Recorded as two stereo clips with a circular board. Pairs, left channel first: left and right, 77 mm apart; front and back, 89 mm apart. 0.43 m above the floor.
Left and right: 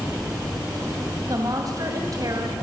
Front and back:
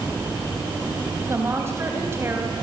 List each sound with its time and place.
1.3 s a woman speaking: 120° right, 3 m